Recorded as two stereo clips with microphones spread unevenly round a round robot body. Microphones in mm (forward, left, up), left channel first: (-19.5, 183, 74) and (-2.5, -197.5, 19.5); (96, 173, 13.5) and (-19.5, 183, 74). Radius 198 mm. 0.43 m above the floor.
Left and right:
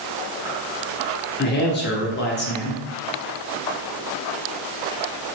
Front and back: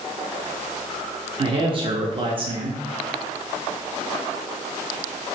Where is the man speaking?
120° left, 0.7 m.